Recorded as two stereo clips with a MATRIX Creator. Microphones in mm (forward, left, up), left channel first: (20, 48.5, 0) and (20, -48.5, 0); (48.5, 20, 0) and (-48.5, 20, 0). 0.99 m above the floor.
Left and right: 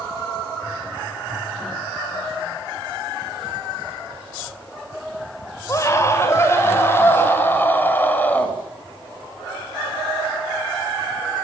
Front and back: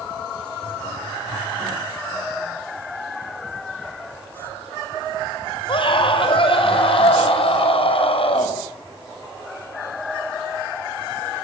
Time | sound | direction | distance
5.7 | a scream | 30° left | 5 m